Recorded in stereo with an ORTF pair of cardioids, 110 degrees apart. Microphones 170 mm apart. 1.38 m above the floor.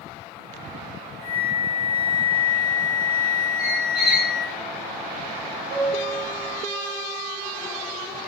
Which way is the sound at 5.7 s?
55° right.